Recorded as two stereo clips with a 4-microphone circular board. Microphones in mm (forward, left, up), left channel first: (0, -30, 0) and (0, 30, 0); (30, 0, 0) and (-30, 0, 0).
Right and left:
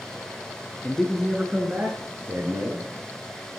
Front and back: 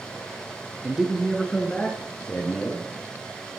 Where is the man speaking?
135° right, 1.2 m; by 2.9 s 60° left, 3 m.